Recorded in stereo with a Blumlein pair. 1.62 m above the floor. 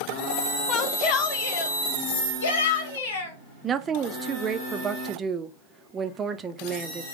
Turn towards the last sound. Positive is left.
turn(degrees=-20)